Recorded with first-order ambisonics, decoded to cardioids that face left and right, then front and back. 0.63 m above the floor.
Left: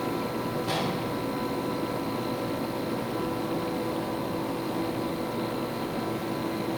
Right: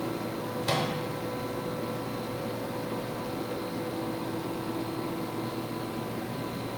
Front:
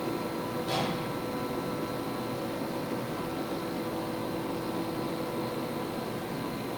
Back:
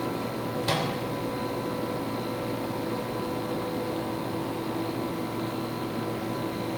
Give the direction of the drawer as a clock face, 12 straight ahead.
No drawer in this recording.